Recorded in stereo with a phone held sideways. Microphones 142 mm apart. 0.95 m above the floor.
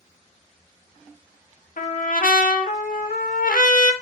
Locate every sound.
1.8 s a trumpet: 80° left, 0.7 m